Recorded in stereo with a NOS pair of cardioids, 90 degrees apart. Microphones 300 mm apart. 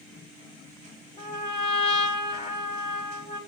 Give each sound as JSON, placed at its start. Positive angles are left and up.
{"t": 1.2, "sound": "a trumpet", "azimuth_deg": 20, "distance_m": 1.5}